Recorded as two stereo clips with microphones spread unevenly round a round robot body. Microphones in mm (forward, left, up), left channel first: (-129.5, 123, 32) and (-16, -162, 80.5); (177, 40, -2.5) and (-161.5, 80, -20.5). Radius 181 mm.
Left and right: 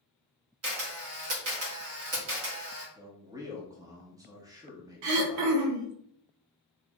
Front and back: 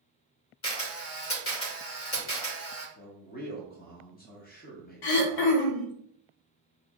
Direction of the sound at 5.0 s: 35° right.